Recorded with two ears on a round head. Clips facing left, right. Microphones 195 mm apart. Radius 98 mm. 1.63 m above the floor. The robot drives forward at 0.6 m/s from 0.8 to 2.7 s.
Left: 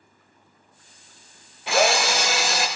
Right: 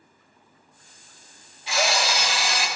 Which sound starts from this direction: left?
A drill, at 1.7 s.